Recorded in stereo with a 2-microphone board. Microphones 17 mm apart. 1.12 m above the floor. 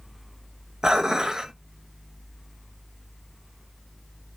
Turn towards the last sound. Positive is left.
turn(degrees=-45)  # may be behind; listen again after turning